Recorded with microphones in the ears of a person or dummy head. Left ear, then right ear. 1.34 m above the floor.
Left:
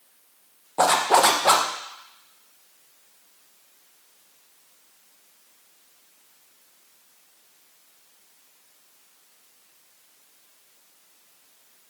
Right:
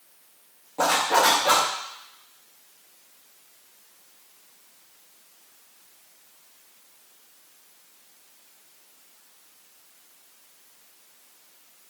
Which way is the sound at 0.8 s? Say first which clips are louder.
Left 2 dB; 40° left (ahead or behind).